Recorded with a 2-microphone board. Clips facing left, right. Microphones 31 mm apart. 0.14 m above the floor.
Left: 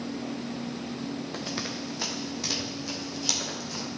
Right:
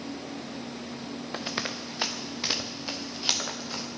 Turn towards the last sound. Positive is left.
turn(degrees=-35)  # may be behind; listen again after turning